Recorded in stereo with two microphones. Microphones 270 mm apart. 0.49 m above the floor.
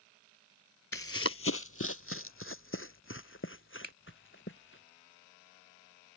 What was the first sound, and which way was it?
Running footsteps, 50° left (ahead or behind).